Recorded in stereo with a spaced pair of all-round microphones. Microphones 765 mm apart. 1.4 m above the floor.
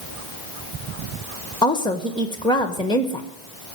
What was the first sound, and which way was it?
A woman speaking, 5° left (ahead or behind).